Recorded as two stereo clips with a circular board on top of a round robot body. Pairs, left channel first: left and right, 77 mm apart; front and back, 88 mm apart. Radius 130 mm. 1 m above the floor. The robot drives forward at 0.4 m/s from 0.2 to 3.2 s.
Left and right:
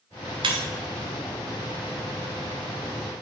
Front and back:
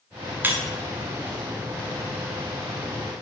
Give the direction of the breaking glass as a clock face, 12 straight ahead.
4 o'clock.